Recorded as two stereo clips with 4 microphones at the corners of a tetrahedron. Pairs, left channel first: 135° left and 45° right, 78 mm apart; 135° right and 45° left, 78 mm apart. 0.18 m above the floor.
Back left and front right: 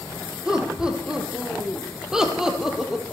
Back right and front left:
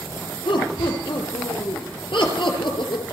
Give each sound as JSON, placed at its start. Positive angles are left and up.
{"t": 0.5, "sound": "laughter", "azimuth_deg": -125, "distance_m": 4.5}